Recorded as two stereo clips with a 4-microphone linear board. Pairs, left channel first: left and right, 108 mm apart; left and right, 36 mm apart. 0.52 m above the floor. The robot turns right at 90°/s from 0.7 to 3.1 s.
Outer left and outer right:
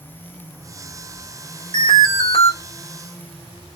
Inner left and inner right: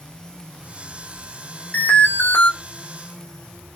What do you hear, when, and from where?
1.7 s an alarm: 55° left, 0.8 m; by 2.5 s 120° left, 0.8 m